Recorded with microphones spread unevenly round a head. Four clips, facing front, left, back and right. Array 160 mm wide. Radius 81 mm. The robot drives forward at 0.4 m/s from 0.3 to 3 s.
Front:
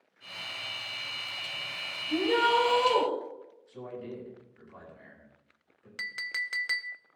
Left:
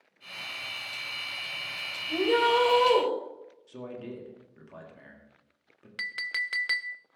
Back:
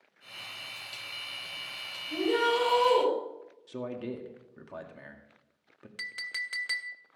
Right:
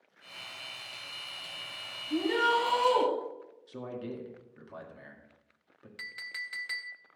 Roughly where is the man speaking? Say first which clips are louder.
Right 1 dB, back 4 dB; behind.